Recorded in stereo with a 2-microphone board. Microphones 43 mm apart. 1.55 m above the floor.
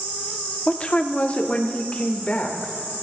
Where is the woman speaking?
25° left (ahead or behind), 0.8 m; by 2.7 s 35° left (ahead or behind), 1.9 m.